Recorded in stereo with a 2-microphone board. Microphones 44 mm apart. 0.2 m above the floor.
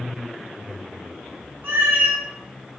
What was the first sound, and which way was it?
A cat meowing, 65° right (ahead or behind).